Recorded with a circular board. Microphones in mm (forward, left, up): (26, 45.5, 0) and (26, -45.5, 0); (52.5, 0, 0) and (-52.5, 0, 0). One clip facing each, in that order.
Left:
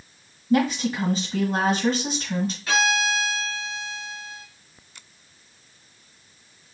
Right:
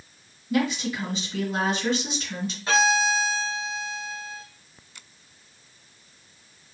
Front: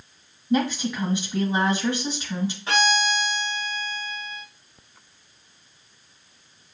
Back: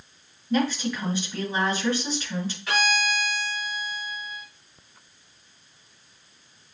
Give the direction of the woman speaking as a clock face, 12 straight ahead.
10 o'clock.